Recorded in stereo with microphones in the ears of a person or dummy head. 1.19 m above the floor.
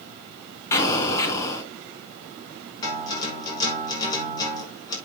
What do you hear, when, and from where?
0.7 s an explosion: 20° left (ahead or behind), 3.5 m
2.8 s a guitar: 25° left (ahead or behind), 5.5 m